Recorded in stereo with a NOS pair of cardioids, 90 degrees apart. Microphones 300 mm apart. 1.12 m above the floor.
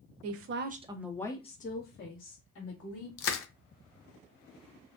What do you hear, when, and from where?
0.2 s a woman speaking: 60° right, 0.6 m; by 3.1 s 50° left, 1.5 m
3.2 s crushing: 50° left, 0.5 m